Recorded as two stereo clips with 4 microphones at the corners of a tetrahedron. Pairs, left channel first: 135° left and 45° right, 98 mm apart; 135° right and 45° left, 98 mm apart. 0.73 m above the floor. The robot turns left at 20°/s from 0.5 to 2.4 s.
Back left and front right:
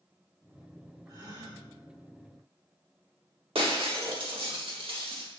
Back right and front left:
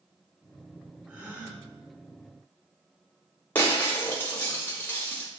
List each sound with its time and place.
1.1 s a gasp: 30° right, 1.3 m; by 1.6 s 40° right, 1.3 m
3.5 s breaking glass: 65° right, 1.0 m